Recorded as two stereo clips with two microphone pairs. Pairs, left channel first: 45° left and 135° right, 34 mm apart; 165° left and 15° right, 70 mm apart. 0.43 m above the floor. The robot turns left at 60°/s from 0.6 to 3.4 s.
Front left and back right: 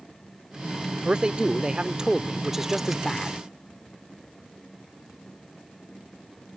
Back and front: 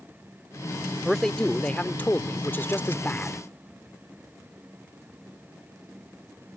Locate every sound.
1.1 s a man speaking: 110° right; by 3.4 s 110° left